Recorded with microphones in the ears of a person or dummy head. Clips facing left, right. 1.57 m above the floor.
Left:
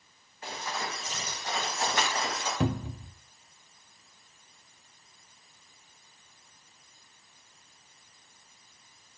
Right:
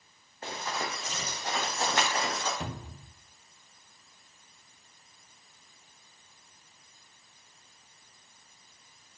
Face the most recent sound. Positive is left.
turn(degrees=55)  # may be behind; listen again after turning